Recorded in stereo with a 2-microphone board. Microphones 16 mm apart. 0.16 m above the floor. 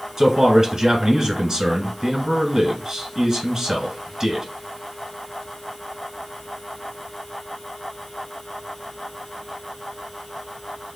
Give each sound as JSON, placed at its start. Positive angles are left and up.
{"t": 0.2, "sound": "a man speaking", "side_deg": -30, "distance_m": 1.1}